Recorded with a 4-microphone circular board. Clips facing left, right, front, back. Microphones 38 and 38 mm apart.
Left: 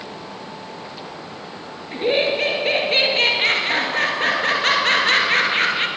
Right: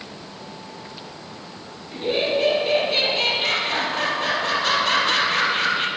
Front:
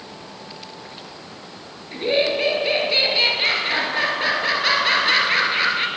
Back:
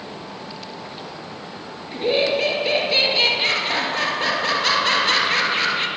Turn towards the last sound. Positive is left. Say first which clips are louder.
# left 3 dB, even
turn(degrees=75)